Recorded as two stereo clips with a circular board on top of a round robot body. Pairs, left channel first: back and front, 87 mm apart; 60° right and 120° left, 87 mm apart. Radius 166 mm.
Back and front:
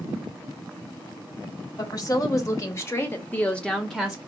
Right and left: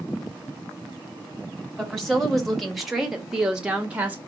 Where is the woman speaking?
145° right, 1.7 m; by 4.2 s 75° left, 1.1 m.